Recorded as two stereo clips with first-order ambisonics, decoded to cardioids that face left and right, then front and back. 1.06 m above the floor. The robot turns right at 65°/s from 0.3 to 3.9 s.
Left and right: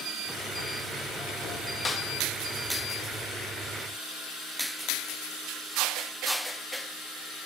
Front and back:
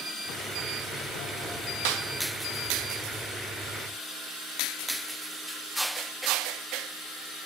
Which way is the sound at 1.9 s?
165° left.